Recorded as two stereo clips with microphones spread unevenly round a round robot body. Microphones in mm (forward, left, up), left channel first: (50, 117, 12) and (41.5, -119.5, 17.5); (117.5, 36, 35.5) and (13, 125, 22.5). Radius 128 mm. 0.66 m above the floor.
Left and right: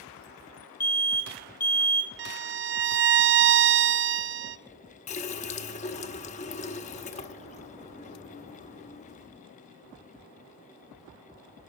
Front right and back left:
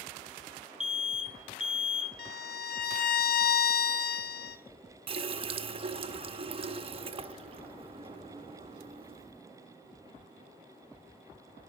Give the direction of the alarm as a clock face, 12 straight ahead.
10 o'clock.